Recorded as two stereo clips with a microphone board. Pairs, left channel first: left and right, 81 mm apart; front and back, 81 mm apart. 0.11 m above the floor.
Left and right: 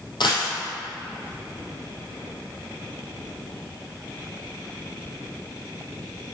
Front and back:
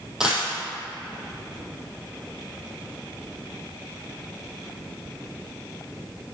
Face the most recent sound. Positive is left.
turn(degrees=100)